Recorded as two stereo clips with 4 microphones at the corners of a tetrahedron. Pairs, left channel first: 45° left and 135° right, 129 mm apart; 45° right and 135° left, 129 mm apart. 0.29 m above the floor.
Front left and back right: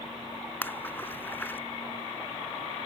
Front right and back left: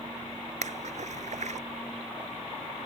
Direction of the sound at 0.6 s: 120° left.